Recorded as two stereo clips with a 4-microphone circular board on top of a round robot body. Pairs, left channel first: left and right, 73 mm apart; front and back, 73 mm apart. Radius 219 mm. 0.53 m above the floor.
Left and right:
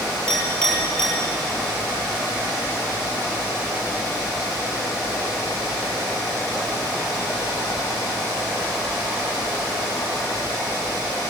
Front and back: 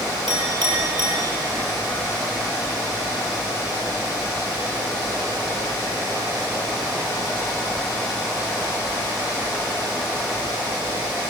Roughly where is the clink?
Behind.